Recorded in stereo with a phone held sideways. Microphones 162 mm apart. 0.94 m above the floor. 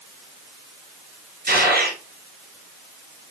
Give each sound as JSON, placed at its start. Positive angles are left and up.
{"t": 1.5, "sound": "a gunshot", "side_deg": -80, "distance_m": 4.0}